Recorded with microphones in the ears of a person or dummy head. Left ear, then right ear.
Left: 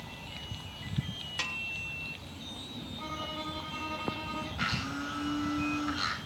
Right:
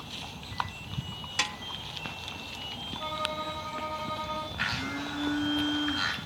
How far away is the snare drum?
About 0.6 m.